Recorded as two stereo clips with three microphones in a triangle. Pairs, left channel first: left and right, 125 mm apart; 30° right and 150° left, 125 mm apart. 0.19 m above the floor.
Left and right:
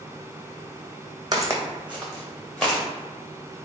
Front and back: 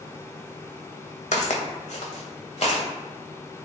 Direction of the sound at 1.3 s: 30° right.